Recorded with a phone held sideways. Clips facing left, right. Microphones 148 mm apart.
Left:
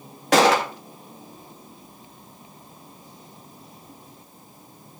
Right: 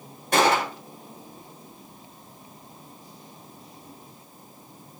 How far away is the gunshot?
About 1.6 m.